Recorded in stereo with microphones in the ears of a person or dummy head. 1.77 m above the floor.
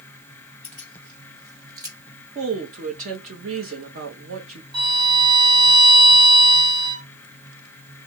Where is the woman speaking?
50° right (ahead or behind), 1.0 m.